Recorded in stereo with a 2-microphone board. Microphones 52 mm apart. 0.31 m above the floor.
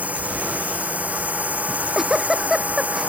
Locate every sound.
0.0 s a drone: 30° right (ahead or behind)
1.7 s a giggle: 10° right (ahead or behind)